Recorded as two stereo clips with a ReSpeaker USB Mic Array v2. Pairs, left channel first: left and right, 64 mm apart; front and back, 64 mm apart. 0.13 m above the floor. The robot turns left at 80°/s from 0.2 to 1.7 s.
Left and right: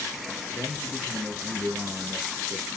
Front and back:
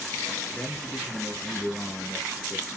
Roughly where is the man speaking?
Ahead left.